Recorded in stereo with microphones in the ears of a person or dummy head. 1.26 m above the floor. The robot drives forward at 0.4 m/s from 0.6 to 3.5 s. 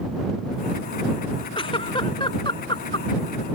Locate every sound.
1.6 s a giggle: 20° left (ahead or behind)